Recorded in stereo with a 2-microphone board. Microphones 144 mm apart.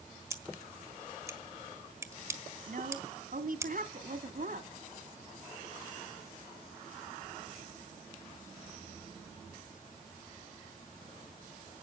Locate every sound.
0.3 s scissors: 20° right (ahead or behind), 1.6 m
2.7 s a woman speaking: 70° right (ahead or behind), 2 m